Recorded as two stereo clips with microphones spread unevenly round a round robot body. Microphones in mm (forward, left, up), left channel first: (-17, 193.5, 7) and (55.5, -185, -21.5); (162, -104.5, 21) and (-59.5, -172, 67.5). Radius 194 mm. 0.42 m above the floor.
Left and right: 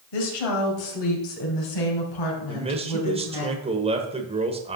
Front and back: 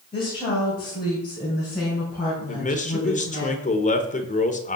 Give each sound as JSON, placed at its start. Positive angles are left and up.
{"t": 0.1, "sound": "a woman speaking", "azimuth_deg": 80, "distance_m": 2.5}
{"t": 2.5, "sound": "a man speaking", "azimuth_deg": -15, "distance_m": 1.2}